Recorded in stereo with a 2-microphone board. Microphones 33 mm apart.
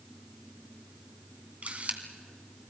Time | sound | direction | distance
1.6 | a camera shutter | 50° right (ahead or behind) | 2 m